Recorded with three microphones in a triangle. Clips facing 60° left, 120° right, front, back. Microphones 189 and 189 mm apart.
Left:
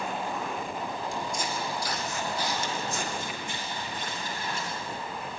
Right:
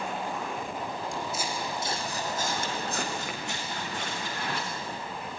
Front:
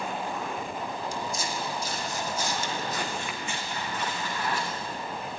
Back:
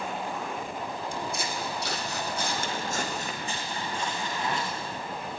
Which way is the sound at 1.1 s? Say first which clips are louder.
Left 1 dB, even; 150° left.